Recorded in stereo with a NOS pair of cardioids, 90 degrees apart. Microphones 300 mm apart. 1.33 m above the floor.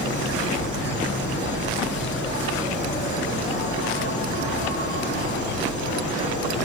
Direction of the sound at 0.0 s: 40° left.